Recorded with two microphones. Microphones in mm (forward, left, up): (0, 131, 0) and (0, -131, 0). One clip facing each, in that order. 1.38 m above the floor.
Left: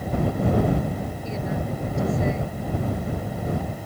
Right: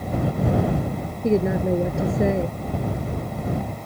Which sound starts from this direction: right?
A woman speaking, at 1.2 s.